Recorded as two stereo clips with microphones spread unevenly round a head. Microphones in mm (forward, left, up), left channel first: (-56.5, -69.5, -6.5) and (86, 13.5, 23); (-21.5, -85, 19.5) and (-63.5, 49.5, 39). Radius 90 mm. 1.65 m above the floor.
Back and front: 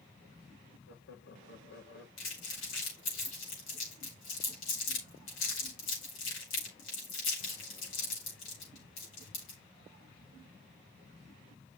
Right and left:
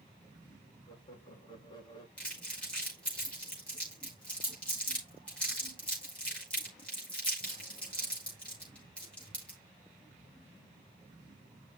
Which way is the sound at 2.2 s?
155° right.